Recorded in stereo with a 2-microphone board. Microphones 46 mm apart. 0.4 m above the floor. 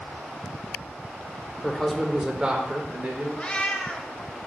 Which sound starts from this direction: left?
A cat meowing, at 3.4 s.